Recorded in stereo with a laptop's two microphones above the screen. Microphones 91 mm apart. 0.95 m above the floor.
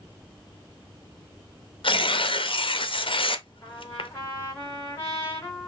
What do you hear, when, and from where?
1.8 s tearing paper: 70° left (ahead or behind), 0.6 m
3.6 s a trumpet: 30° left (ahead or behind), 2.5 m